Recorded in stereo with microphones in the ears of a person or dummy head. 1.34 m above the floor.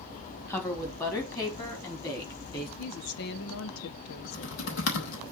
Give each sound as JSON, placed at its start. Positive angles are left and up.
{"t": 0.5, "sound": "a woman speaking", "side_deg": 10, "distance_m": 2.5}
{"t": 2.8, "sound": "a woman speaking", "side_deg": 65, "distance_m": 1.0}
{"t": 4.2, "sound": "typing on a keyboard", "side_deg": 60, "distance_m": 2.5}